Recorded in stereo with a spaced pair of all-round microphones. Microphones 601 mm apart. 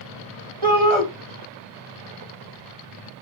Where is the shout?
50° right (ahead or behind), 2.0 m.